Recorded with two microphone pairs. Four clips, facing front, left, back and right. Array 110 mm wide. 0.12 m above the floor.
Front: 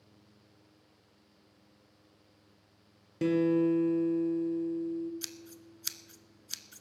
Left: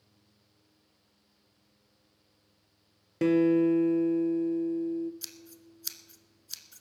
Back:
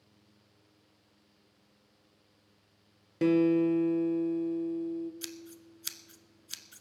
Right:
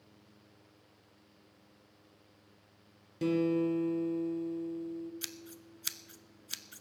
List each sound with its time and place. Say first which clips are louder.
3.2 s a guitar: left 7 dB, back 2 dB; 110° left, 1.1 m
5.2 s scissors: right 3 dB, back 3 dB; 80° right, 0.6 m